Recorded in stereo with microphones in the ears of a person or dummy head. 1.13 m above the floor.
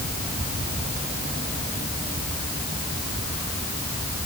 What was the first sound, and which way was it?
Only background noise.